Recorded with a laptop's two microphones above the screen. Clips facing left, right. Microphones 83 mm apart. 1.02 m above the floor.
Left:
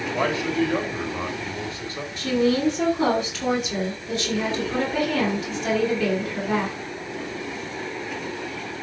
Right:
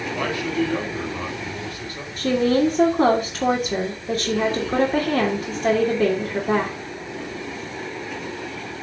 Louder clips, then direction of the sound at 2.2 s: Right 3 dB; 40° right (ahead or behind).